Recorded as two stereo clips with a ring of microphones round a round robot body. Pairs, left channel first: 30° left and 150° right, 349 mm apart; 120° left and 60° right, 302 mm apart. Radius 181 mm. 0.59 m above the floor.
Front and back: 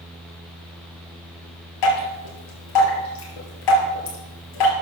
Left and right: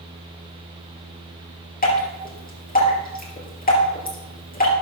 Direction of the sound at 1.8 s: 60° left.